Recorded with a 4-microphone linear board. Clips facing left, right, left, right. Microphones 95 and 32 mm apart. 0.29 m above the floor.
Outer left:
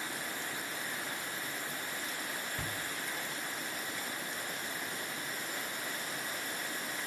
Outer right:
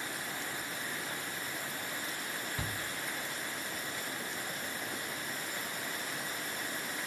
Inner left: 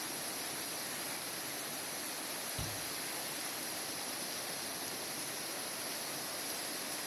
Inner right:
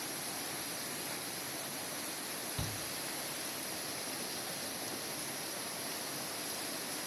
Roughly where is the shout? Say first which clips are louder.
Outer right 1 dB, inner right 1 dB; centre.